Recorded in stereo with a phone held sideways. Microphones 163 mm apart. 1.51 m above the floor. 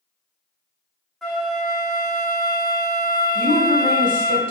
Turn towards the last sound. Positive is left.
turn(degrees=-55)  # may be behind; listen again after turning